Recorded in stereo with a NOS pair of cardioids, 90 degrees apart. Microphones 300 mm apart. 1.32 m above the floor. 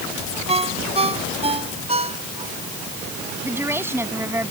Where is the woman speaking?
10° right.